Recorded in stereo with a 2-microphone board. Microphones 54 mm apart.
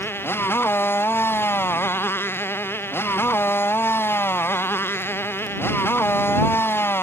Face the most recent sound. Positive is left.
turn(degrees=45)  # may be behind; listen again after turning